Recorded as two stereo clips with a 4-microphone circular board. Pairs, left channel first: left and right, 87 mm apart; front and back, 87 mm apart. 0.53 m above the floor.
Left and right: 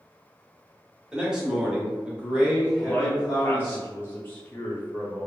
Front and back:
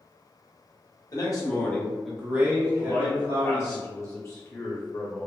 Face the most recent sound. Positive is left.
turn(degrees=35)